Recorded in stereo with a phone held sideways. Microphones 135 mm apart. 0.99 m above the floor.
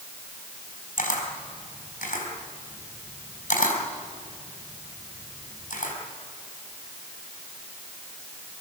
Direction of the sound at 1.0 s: 70° left (ahead or behind).